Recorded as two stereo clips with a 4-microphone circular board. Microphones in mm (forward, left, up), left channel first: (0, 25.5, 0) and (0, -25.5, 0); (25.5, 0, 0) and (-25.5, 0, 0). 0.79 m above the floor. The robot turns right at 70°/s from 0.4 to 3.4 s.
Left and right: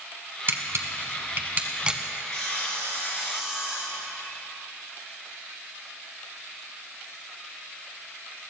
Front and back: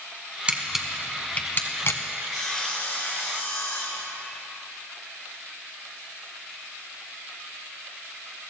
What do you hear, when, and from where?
0.5 s a camera shutter: 120° right, 1.1 m; by 2.0 s 15° right, 1.1 m
2.3 s sawing: 95° right, 4 m; by 4.4 s 15° right, 4 m